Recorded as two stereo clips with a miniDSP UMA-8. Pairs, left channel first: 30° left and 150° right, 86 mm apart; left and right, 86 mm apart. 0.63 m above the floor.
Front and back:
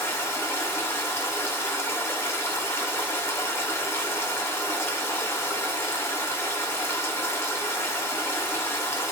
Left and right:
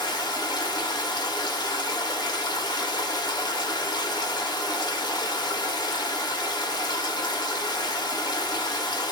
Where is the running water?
80° left, 1.0 m.